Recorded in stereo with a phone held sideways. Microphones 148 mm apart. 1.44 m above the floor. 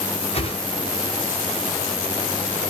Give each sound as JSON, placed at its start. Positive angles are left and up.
{"t": 0.3, "sound": "a whoosh", "side_deg": 45, "distance_m": 3.5}